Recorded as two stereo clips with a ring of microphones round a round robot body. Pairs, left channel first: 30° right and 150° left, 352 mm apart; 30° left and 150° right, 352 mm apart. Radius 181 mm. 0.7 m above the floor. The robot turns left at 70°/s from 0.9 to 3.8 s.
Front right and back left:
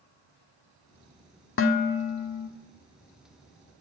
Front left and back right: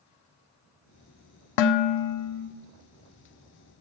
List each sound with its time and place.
1.6 s dishes clattering: 25° left, 0.9 m; by 2.5 s 35° right, 0.9 m